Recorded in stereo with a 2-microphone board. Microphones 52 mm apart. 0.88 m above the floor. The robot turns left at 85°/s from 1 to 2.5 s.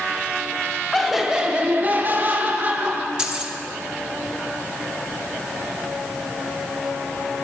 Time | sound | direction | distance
0.9 | laughter | straight ahead | 0.6 m
3.2 | keys jangling | 15° right (ahead or behind) | 0.7 m